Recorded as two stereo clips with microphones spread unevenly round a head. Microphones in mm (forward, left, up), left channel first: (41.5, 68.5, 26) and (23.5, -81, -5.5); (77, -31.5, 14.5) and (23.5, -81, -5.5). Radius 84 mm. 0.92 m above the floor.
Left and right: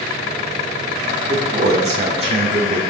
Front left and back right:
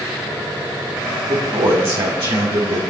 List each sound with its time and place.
1.2 s a man speaking: 150° right, 2 m